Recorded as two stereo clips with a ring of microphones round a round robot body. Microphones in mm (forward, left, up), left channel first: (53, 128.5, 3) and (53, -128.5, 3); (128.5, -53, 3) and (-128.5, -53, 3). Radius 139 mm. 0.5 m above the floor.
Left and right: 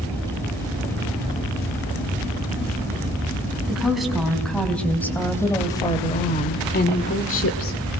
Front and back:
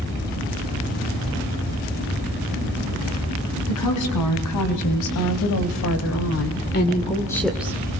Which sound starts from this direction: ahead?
A woman speaking, at 3.7 s.